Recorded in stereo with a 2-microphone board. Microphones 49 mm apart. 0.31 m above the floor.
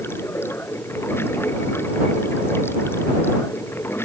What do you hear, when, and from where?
0.0 s running water: 50° left (ahead or behind)